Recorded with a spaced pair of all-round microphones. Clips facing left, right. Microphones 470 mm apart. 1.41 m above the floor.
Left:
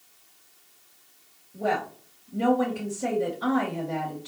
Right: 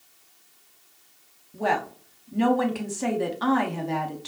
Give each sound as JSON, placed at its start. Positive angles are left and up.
{"t": 1.5, "sound": "a woman speaking", "side_deg": -70, "distance_m": 0.9}